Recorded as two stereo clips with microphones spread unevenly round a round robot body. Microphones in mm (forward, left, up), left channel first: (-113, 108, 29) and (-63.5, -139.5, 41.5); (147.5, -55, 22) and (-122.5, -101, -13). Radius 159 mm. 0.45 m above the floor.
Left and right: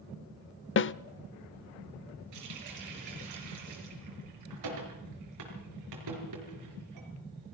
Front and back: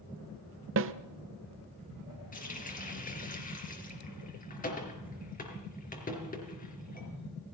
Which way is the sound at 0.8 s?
145° left.